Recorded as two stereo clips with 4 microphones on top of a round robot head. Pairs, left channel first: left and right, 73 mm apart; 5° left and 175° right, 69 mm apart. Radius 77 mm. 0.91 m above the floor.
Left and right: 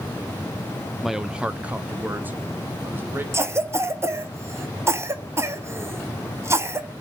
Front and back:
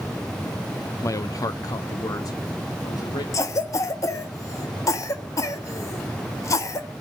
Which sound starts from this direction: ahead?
A man speaking, at 1.0 s.